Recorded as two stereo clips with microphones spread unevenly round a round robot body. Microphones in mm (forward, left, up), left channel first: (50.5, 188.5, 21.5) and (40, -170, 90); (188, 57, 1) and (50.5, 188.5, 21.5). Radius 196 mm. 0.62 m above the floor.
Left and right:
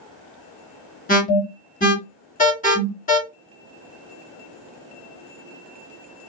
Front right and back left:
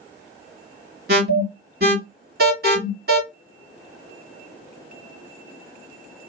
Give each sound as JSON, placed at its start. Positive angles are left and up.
{"t": 1.1, "sound": "an alarm", "azimuth_deg": 135, "distance_m": 2.0}